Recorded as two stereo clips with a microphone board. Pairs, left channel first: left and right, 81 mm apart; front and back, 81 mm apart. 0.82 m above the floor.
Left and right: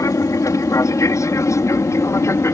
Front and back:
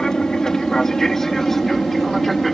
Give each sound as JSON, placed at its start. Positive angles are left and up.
{"t": 0.0, "sound": "an aircraft", "azimuth_deg": 80}